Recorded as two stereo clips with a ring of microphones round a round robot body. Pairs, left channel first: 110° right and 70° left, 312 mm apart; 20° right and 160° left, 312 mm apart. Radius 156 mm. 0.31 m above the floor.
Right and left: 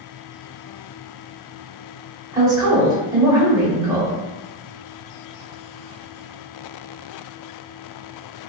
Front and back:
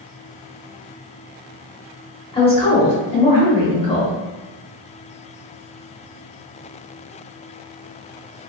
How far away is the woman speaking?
About 0.8 m.